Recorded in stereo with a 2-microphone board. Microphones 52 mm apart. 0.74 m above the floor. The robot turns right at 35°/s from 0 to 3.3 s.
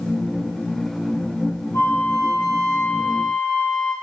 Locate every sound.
1.7 s a flute: 100° left, 7 m; by 3.9 s 155° left, 7 m